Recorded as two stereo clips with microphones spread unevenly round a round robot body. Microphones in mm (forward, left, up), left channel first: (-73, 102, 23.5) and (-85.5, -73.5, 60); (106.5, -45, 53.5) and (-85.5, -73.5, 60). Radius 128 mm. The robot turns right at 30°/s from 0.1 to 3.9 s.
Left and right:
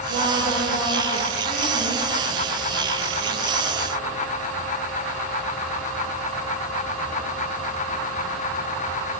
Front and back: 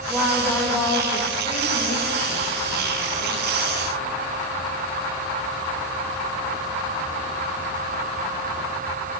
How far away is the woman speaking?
About 3 m.